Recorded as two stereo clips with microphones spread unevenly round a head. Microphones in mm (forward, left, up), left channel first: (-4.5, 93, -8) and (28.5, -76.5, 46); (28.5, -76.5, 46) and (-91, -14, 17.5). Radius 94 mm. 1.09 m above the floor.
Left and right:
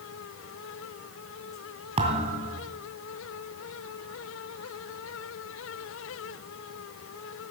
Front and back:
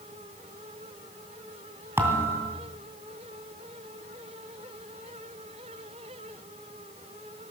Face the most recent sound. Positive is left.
turn(degrees=-130)